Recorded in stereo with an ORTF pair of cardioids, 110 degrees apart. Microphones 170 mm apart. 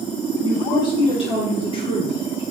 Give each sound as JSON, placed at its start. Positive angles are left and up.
{"t": 0.4, "sound": "a woman speaking", "azimuth_deg": 30, "distance_m": 1.5}